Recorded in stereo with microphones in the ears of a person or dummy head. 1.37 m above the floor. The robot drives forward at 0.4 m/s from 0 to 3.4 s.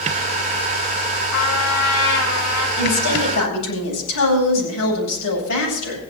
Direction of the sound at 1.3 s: 70° left (ahead or behind).